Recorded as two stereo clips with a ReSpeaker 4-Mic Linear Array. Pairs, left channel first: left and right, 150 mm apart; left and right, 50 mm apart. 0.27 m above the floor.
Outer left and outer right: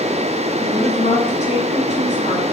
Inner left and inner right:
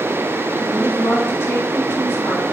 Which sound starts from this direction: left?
A woman speaking, at 0.6 s.